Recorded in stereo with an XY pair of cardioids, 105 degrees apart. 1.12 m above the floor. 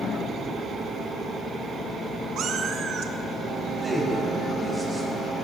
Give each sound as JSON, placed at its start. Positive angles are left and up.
{"t": 2.4, "sound": "a cat meowing", "azimuth_deg": -70, "distance_m": 1.1}
{"t": 3.8, "sound": "a man speaking", "azimuth_deg": -15, "distance_m": 5.0}